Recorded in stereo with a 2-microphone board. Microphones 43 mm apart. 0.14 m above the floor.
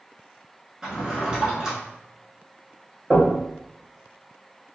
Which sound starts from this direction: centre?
A drawer, at 0.8 s.